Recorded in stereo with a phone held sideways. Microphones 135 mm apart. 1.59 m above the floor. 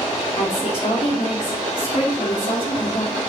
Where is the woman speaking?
60° left (ahead or behind), 3 m.